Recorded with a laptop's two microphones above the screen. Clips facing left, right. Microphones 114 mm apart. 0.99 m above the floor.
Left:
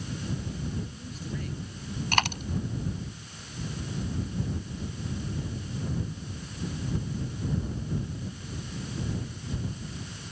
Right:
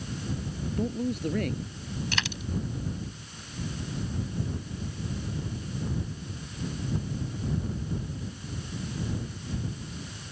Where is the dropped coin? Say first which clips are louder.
Left 6 dB; 55° left (ahead or behind).